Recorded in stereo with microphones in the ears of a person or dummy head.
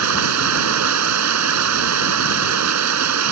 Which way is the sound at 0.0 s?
80° right.